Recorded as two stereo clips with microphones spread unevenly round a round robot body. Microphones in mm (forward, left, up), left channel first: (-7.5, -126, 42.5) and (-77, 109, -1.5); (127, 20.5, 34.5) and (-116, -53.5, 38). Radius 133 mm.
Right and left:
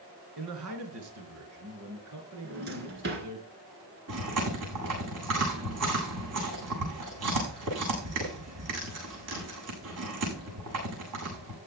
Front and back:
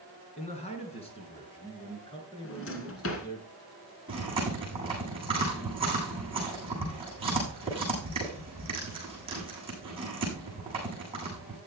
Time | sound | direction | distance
0.4 | a man speaking | 80° left | 3.5 m
2.4 | a drawer | 55° left | 2 m
4.1 | chewing | 125° left | 8.5 m